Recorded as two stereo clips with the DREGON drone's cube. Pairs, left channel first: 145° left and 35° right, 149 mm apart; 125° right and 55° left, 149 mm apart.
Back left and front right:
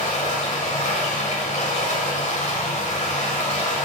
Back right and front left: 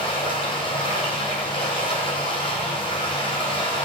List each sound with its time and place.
0.0 s running water: 175° right, 2.5 m